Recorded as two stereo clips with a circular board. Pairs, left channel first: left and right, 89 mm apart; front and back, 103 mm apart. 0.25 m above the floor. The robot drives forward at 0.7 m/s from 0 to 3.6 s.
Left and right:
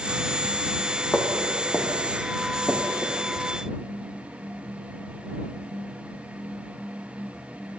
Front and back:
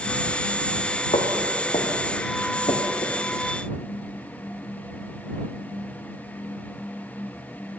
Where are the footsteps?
15° left, 2 m; by 3.2 s 10° left, 2.5 m.